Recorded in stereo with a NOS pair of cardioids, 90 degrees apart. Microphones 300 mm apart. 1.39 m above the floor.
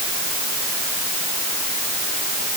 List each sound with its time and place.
Only background noise.